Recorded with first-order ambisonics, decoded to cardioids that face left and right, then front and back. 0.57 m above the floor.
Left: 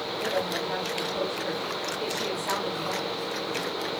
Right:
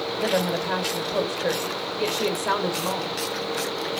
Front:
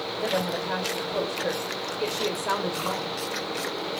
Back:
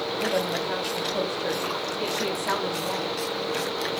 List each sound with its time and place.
0.2 s a woman speaking: 75° right, 0.7 m